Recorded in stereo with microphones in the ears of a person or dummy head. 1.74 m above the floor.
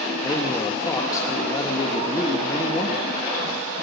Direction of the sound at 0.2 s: 20° left (ahead or behind).